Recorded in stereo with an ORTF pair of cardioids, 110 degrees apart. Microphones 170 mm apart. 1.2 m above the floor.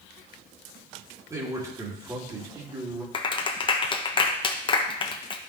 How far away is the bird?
No bird in this recording.